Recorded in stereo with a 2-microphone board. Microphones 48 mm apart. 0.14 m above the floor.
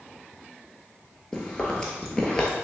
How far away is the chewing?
About 0.9 m.